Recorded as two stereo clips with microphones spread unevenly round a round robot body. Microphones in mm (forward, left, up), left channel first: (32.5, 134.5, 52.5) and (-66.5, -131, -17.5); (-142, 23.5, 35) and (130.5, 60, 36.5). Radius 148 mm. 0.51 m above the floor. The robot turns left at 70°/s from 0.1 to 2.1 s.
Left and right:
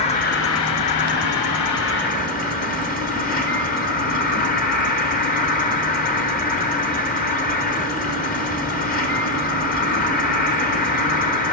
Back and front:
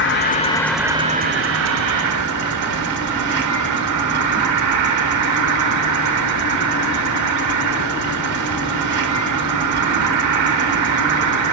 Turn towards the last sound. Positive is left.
turn(degrees=5)